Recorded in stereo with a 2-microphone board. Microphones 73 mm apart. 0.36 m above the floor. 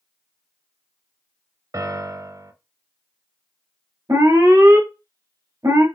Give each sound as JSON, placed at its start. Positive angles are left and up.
{"t": 1.7, "sound": "a piano", "side_deg": -50, "distance_m": 0.5}
{"t": 4.1, "sound": "an alarm", "side_deg": -50, "distance_m": 1.1}